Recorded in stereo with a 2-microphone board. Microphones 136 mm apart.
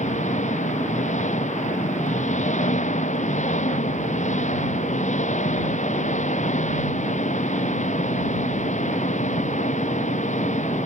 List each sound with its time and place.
0.0 s an engine running: 70° left (ahead or behind)